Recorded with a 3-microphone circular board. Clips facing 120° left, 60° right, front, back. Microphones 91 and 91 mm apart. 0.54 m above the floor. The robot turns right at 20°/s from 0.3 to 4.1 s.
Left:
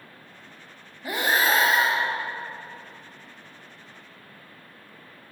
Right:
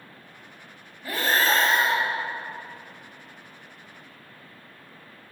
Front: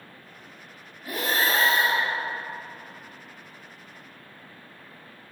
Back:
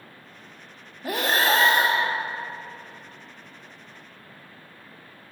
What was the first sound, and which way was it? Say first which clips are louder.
Breathing: even, back 3 dB; 170° right.